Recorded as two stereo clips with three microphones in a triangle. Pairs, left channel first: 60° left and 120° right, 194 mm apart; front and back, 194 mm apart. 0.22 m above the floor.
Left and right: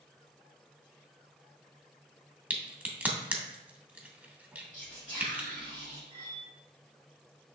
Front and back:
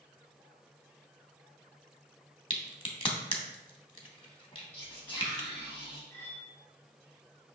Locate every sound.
2.5 s a crack: 45° right, 0.8 m
4.7 s whispering: 80° left, 1.5 m
6.1 s cutlery clinking: 65° right, 0.9 m